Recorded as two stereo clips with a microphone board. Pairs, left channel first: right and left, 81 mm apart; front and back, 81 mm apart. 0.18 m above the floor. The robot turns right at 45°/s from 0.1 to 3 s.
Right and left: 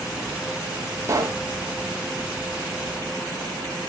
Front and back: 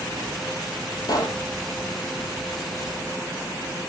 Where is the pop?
35° left, 1.6 m; by 1.4 s 50° left, 1.6 m.